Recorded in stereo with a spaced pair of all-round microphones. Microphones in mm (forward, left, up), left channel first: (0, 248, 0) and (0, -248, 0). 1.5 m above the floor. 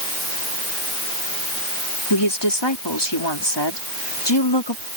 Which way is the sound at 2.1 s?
55° left (ahead or behind).